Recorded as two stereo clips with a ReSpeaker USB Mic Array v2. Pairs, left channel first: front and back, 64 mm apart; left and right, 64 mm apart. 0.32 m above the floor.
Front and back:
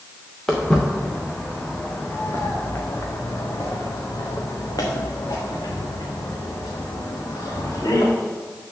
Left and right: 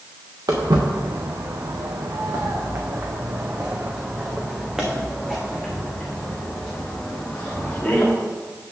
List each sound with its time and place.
0.5 s footsteps: 85° right, 1.9 m; by 8.1 s 15° left, 3.5 m